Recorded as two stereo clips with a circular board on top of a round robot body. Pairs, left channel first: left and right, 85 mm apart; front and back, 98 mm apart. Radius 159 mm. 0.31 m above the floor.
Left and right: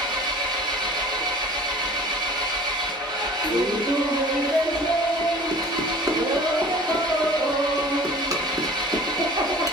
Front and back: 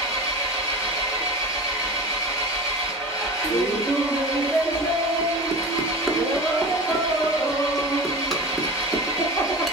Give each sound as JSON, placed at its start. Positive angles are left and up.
{"t": 0.0, "sound": "an engine running", "azimuth_deg": -55, "distance_m": 2.5}
{"t": 3.4, "sound": "laughter", "azimuth_deg": -90, "distance_m": 1.3}